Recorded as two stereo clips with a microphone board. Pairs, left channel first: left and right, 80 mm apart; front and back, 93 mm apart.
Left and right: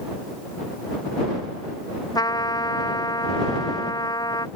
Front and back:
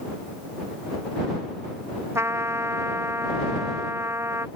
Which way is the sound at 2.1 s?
120° left.